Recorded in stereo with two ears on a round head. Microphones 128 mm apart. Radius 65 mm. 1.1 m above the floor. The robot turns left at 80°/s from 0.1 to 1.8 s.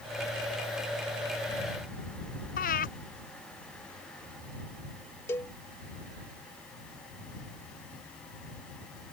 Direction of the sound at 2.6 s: 65° left (ahead or behind).